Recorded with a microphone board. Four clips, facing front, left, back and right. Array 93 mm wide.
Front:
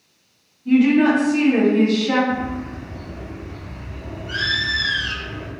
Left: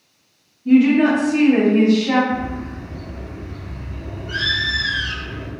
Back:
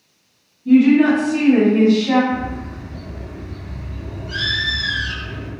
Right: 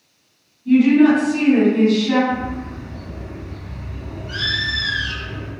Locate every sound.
0.7 s a woman speaking: 55° left, 1.7 m; by 2.2 s 125° left, 1.8 m
2.3 s a bird: 25° left, 1.6 m